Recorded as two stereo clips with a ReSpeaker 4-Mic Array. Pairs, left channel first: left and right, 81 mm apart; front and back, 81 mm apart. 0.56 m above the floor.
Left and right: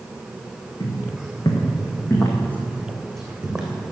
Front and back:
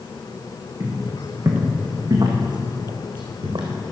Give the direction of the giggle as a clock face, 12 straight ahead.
No giggle in this recording.